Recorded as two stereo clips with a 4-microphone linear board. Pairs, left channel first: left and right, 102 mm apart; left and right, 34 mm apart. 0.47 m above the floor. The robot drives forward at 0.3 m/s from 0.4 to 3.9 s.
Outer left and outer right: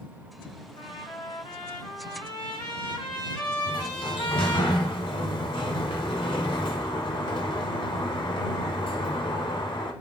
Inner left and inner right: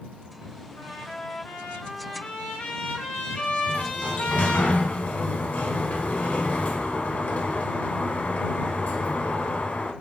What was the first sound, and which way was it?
A trumpet, 65° left (ahead or behind).